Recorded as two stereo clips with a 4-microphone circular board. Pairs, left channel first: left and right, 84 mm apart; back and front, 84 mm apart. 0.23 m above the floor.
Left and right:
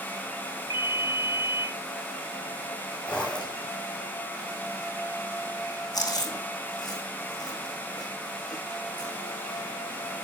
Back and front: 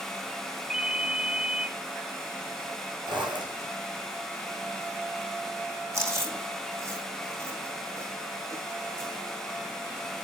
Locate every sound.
0.7 s a ringtone: 80° left, 2 m
3.1 s a zipper: 15° left, 6 m
5.9 s chewing: 50° left, 6 m